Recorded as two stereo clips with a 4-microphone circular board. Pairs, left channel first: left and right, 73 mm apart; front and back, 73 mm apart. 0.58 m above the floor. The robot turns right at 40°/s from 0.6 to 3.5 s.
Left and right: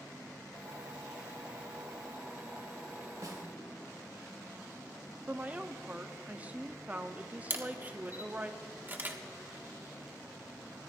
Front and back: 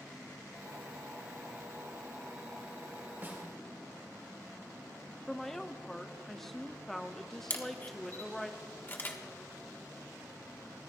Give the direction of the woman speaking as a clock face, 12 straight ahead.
3 o'clock.